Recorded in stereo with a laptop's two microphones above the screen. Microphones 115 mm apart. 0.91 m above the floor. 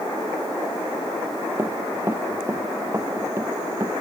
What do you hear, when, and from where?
1.6 s running footsteps: 20° right (ahead or behind)